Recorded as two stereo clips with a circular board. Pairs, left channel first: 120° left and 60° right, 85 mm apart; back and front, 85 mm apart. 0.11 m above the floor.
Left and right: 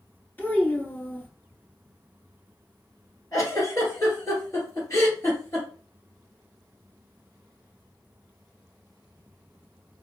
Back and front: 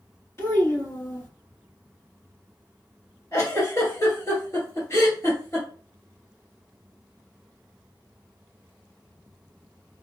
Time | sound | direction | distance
0.4 | a child speaking | 165° left | 1.2 m
3.3 | a giggle | 150° left | 2.0 m